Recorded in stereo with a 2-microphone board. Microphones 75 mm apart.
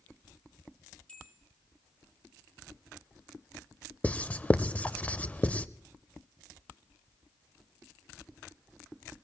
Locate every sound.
1.1 s a bell: 15° left (ahead or behind), 4 m
4.0 s writing: 20° left (ahead or behind), 0.5 m